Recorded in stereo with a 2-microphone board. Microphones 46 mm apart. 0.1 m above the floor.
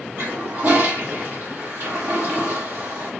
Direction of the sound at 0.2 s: 55° right (ahead or behind).